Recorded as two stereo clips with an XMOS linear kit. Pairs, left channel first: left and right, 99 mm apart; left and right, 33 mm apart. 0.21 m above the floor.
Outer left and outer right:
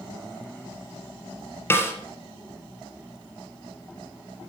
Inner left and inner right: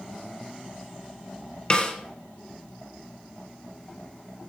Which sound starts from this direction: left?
A snare drum, at 1.7 s.